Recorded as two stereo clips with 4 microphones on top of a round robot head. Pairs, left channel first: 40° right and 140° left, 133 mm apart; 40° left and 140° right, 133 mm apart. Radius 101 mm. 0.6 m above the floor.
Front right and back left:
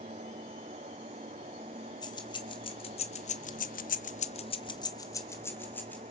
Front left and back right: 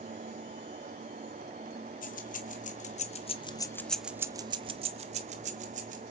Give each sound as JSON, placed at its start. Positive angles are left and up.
{"t": 2.0, "sound": "keys jangling", "azimuth_deg": 20, "distance_m": 1.9}